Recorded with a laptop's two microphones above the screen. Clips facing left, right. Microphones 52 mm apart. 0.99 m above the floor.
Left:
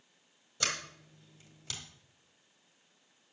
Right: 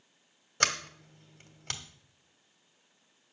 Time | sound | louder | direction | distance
0.6 | a sliding door | right 6 dB | 60° right (ahead or behind) | 1.3 m